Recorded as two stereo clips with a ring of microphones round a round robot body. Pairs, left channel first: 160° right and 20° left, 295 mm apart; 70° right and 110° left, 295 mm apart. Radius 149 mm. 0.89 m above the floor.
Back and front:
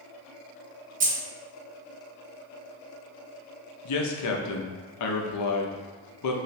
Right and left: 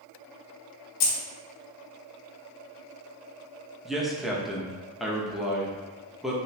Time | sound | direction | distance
1.0 | keys jangling | 40° right | 0.9 m
3.9 | a man speaking | 160° right | 0.7 m